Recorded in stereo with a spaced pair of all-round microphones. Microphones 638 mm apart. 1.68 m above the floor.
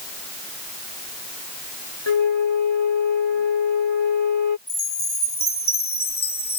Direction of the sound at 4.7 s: 15° left (ahead or behind).